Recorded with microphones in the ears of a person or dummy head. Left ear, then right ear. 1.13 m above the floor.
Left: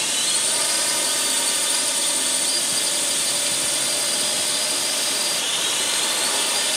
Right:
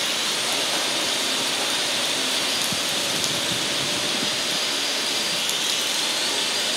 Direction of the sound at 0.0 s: 50° left (ahead or behind).